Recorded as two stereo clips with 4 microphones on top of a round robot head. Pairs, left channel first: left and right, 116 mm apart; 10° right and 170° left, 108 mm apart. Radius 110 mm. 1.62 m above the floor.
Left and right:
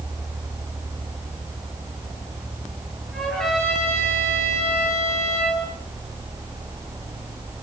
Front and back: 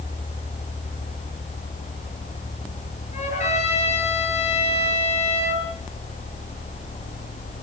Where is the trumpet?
Straight ahead, 10 m.